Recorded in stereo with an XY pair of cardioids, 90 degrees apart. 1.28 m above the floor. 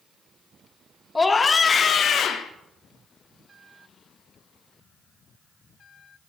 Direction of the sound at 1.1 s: 25° left.